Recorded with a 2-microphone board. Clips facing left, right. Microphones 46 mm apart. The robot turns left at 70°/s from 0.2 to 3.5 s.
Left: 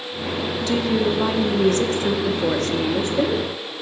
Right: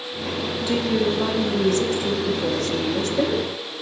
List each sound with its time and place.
0.7 s a woman speaking: 165° right, 0.6 m; by 3.5 s straight ahead, 0.6 m